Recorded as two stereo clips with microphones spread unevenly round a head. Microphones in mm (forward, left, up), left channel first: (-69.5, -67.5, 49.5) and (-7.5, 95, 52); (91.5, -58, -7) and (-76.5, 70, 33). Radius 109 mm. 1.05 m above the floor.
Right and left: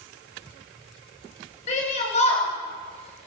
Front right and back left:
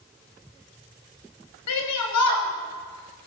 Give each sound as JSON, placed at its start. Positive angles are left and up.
{"t": 1.7, "sound": "a shout", "azimuth_deg": -50, "distance_m": 7.5}